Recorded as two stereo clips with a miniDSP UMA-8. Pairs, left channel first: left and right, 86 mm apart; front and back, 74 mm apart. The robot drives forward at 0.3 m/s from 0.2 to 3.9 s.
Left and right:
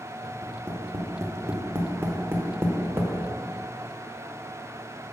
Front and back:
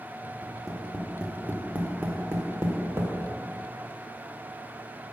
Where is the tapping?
95° right, 0.9 m; by 3.1 s 150° right, 1.2 m.